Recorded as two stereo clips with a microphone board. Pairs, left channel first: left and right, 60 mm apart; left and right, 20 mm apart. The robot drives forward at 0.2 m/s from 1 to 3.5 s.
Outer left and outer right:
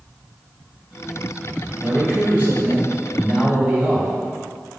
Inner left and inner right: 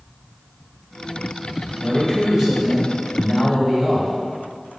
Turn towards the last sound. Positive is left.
turn(degrees=-25)  # may be behind; listen again after turning